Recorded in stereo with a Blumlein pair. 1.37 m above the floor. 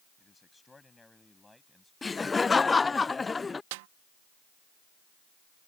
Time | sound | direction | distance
0.2 | a man speaking | 10° left | ?
2.0 | laughter | 10° left | ?
3.7 | a snare drum | 50° right | ?